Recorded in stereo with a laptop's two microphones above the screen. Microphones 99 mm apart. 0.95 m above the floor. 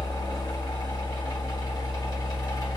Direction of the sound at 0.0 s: 55° left (ahead or behind).